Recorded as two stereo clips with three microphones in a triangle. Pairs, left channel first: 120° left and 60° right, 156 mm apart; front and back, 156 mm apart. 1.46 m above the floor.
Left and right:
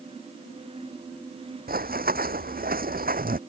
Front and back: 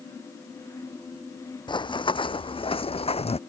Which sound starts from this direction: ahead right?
Running footsteps, at 1.7 s.